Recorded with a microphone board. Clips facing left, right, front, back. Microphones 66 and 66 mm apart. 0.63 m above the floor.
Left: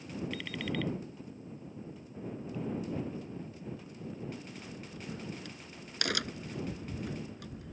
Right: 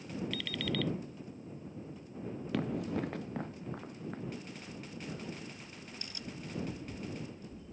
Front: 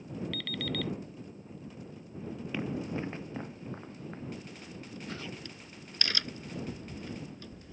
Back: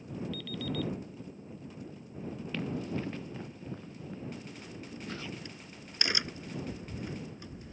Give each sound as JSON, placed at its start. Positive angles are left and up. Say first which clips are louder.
{"t": 0.3, "sound": "an alarm clock", "louder": "even, even", "azimuth_deg": 20}
{"t": 2.5, "sound": "running footsteps", "louder": "right 3 dB, front 1 dB", "azimuth_deg": -75}
{"t": 4.6, "sound": "a crack", "louder": "even, back 1 dB", "azimuth_deg": 105}